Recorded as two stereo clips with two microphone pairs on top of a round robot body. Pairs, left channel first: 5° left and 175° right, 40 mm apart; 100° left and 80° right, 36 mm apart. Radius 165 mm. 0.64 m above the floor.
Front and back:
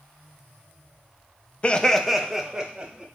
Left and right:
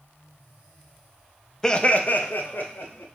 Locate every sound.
1.6 s laughter: 40° left, 0.6 m; by 3.0 s 120° left, 1.4 m